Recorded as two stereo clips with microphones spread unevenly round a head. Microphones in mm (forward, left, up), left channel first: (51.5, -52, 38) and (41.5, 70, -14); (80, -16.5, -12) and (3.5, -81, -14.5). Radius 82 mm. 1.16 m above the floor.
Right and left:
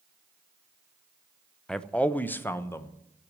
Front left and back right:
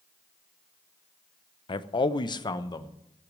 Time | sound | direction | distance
1.7 | a man speaking | 20° left | 0.8 m